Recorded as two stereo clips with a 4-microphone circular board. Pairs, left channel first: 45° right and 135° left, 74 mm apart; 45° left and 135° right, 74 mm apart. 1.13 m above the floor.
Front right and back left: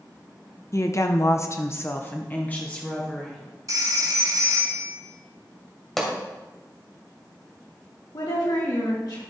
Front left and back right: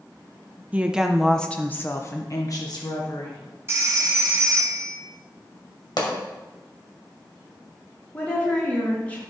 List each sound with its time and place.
0.7 s a woman speaking: 75° right, 0.7 m; by 3.4 s 30° left, 1.4 m
3.7 s a phone ringing: 170° left, 1.6 m
6.0 s a pop: 40° left, 2 m
8.1 s a woman speaking: 25° right, 3 m